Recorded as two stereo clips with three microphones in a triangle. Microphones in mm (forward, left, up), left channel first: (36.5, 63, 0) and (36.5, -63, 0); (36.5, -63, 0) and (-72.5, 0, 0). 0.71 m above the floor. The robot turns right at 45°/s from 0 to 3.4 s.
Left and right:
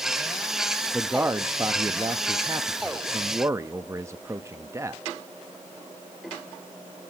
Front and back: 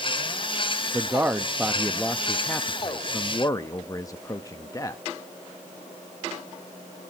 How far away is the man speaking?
About 0.5 m.